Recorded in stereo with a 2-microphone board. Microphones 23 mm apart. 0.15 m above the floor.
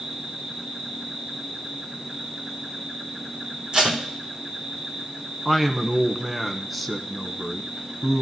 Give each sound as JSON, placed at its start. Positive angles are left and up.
{"t": 0.0, "sound": "an insect", "side_deg": -75, "distance_m": 6.0}
{"t": 3.7, "sound": "tape being pulled", "side_deg": -50, "distance_m": 3.0}
{"t": 5.5, "sound": "a man speaking", "side_deg": -5, "distance_m": 1.2}